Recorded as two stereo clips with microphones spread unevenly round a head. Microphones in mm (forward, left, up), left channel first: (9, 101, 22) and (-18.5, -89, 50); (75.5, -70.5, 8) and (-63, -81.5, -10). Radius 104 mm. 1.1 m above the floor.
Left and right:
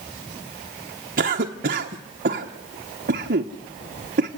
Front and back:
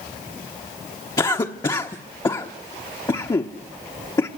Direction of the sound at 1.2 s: 55° right.